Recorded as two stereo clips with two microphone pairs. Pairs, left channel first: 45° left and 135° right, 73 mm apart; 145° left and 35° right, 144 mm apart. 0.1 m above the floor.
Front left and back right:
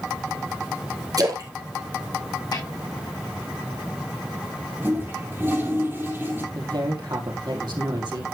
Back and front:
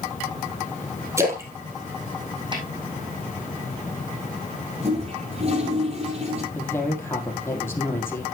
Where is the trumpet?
No trumpet in this recording.